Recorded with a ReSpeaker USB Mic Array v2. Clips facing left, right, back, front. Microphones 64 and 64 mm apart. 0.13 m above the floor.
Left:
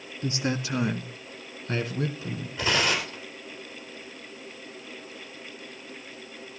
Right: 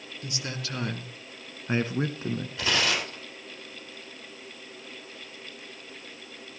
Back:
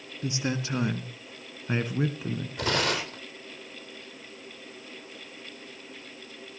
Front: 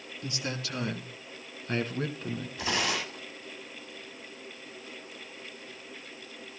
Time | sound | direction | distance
0.2 | a man speaking | 125° left | 1.3 m
2.6 | tearing paper | 170° left | 4 m